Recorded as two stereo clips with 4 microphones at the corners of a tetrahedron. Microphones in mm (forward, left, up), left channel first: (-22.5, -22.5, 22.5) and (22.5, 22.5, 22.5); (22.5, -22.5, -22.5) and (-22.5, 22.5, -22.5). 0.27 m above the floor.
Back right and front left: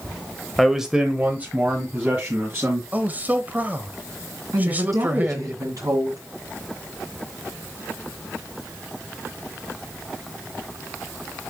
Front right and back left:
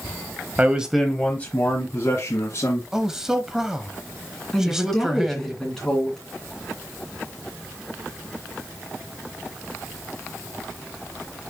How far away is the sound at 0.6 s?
About 1.2 m.